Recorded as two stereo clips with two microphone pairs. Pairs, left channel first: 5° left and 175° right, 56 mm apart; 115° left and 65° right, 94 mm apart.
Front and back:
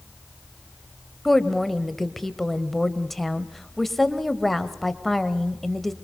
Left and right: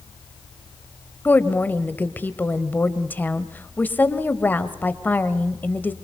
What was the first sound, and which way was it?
A woman speaking, 90° left.